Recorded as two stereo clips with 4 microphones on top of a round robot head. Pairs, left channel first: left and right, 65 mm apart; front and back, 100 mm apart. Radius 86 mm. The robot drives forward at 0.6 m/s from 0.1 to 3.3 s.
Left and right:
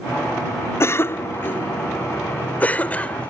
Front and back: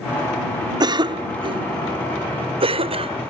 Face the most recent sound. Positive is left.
turn(degrees=160)